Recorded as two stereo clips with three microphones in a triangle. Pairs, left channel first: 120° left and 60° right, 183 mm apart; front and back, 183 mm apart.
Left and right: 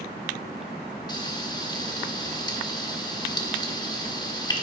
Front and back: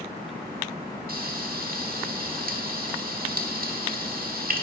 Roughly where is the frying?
Behind.